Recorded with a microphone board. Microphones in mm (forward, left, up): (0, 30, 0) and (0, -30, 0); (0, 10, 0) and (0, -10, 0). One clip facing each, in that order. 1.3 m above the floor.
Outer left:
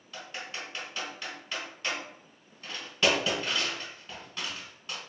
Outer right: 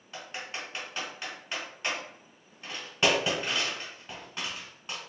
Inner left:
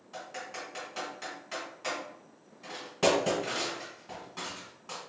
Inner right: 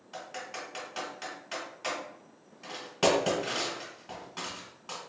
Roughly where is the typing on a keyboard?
Right.